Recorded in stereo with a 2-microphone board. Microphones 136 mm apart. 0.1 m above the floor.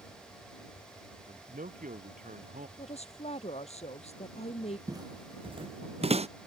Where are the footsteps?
25° right (ahead or behind); by 6.3 s 50° right (ahead or behind).